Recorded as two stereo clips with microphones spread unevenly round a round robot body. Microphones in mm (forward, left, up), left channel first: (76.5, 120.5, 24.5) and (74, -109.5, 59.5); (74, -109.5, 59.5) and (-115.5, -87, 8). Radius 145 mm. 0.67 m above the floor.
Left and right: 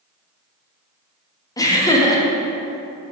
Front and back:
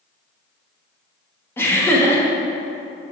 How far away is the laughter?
About 1.0 m.